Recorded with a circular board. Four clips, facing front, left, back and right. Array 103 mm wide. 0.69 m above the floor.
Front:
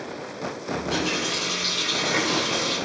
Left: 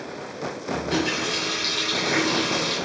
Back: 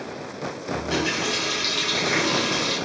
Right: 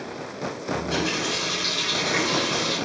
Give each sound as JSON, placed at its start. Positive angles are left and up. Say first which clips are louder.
{"t": 0.7, "sound": "a running tap", "louder": "left 2 dB, back 1 dB", "azimuth_deg": 160, "distance_m": 3.5}